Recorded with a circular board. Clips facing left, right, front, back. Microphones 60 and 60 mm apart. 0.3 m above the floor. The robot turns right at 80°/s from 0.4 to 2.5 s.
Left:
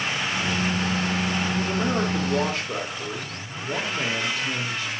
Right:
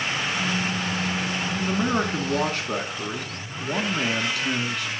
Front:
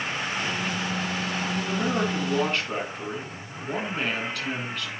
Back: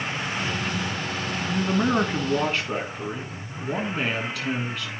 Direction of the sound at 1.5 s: 175° right.